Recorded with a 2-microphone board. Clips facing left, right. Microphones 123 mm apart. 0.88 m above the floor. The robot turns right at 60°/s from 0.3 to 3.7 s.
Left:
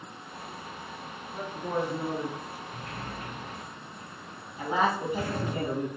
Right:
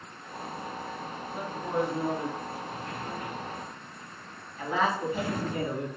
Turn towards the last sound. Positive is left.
turn(degrees=20)  # may be behind; listen again after turning